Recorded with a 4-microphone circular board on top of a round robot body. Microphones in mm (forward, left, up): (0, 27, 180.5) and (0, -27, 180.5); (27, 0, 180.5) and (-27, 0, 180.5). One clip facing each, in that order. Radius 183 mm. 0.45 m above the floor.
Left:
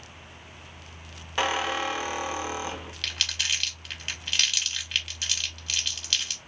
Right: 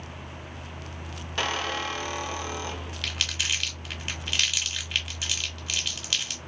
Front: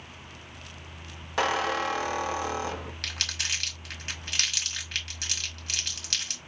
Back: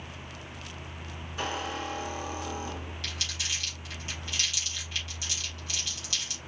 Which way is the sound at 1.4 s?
15° left.